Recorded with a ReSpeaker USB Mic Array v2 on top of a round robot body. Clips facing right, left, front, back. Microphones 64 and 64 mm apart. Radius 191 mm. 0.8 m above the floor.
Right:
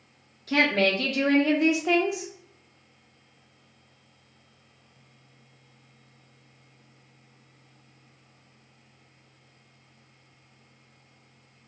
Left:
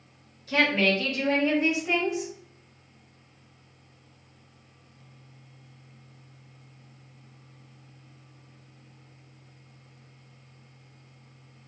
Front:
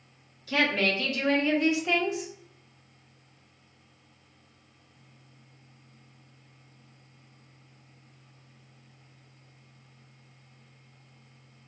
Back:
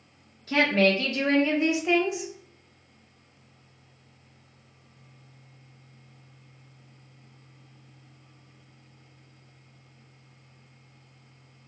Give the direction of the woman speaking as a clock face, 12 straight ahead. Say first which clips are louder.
Right 1 dB, back 4 dB; 4 o'clock.